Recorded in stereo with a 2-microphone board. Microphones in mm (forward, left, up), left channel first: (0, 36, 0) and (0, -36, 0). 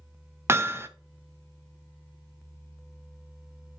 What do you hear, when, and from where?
0.5 s hammering: 35° right (ahead or behind), 0.6 m